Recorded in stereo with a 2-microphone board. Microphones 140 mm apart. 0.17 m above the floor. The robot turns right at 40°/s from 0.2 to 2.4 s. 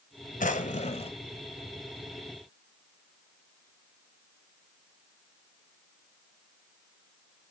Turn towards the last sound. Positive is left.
turn(degrees=-170)